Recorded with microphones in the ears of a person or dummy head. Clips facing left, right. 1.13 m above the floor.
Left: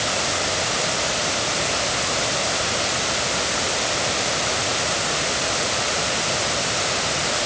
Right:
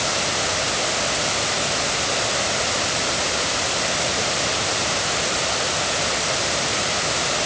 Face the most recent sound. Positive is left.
No sound to turn to.